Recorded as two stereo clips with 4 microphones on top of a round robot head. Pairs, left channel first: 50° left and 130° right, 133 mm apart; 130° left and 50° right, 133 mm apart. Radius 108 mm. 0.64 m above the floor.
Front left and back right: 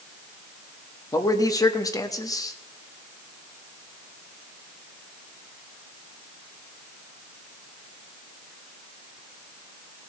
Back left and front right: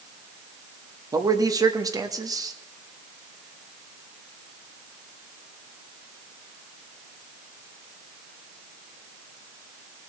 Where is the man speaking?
Straight ahead, 1.3 m.